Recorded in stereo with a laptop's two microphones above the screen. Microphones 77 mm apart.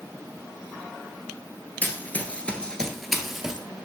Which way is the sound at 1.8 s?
25° left (ahead or behind).